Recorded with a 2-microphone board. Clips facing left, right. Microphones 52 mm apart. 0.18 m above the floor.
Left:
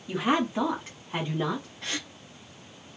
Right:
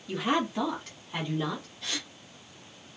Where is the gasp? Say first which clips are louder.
Left 2 dB; 35° left (ahead or behind), 1.0 m.